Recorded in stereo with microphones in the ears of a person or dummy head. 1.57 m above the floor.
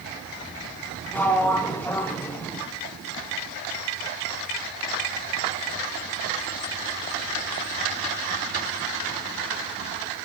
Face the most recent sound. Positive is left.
turn(degrees=10)  # may be behind; listen again after turning